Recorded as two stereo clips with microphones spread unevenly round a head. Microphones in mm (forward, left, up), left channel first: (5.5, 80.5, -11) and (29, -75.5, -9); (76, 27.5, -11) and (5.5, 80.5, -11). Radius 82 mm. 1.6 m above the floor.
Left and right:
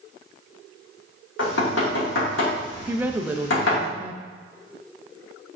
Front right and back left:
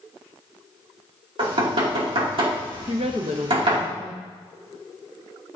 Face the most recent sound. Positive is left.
turn(degrees=-160)